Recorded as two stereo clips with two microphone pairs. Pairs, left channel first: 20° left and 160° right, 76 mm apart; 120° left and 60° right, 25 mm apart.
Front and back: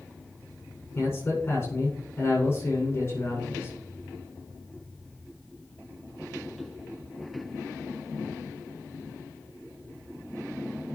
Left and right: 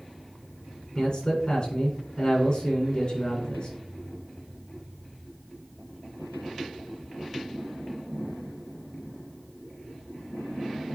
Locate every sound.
0.9 s a man speaking: 80° left, 7.5 m